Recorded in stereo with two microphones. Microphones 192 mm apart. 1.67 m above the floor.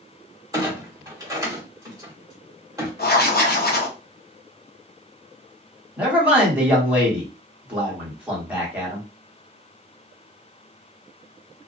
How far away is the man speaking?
About 1.3 m.